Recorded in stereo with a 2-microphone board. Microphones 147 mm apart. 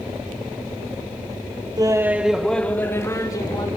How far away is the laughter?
About 0.9 m.